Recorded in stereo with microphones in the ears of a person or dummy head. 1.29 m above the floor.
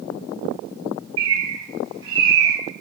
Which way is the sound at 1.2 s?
20° right (ahead or behind).